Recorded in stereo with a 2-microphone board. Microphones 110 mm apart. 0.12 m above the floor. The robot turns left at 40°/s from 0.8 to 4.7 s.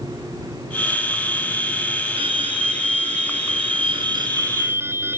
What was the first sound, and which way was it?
An alarm, 55° right.